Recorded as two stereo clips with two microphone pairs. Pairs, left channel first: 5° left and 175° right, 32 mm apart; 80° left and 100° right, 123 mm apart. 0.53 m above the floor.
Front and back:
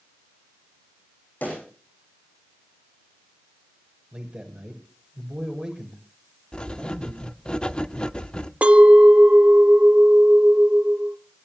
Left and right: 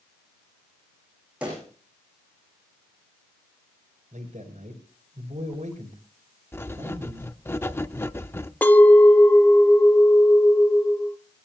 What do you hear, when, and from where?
1.4 s a pop: 20° right, 9.5 m
4.1 s a man speaking: 115° right, 7 m
6.5 s writing: 25° left, 0.7 m
8.6 s a clink: 150° left, 0.9 m